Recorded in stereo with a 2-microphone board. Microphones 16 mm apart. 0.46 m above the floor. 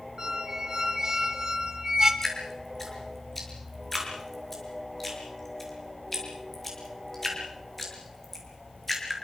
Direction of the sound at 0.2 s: 35° right (ahead or behind).